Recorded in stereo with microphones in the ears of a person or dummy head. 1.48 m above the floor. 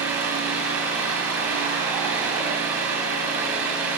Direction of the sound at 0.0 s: 10° right (ahead or behind).